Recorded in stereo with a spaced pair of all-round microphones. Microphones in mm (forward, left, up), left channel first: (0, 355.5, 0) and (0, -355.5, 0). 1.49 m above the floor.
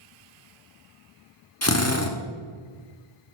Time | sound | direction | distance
1.6 | a drill | 20° left (ahead or behind) | 1.0 m